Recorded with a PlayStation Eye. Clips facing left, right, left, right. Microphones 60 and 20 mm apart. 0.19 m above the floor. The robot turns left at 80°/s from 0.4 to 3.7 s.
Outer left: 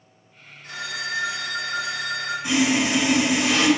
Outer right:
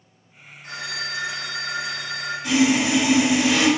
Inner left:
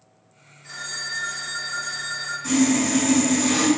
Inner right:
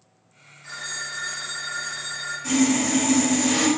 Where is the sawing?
150° left, 1.3 m; by 3.7 s 50° left, 1.3 m.